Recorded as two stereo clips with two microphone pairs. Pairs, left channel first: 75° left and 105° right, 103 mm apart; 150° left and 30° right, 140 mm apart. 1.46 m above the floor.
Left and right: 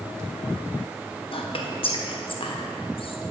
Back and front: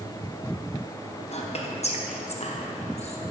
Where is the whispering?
110° left, 1.1 m.